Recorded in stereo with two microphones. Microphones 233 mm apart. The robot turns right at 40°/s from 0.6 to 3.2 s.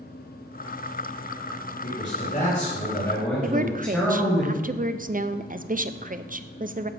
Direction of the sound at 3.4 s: 35° right (ahead or behind).